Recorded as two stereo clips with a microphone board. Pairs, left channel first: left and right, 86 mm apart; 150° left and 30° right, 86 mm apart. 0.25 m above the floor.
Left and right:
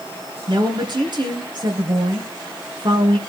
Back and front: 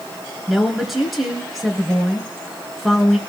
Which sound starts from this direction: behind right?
A woman speaking, at 0.5 s.